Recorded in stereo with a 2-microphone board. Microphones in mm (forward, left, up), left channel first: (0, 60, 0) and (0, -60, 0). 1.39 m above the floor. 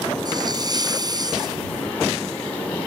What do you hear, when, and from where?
0.2 s a hiss: 35° right (ahead or behind)